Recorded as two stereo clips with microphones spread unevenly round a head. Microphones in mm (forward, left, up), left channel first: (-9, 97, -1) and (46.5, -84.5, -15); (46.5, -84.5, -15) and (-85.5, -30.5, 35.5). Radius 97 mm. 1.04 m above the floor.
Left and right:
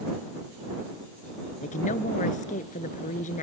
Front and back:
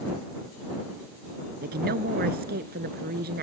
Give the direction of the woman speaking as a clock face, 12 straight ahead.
7 o'clock.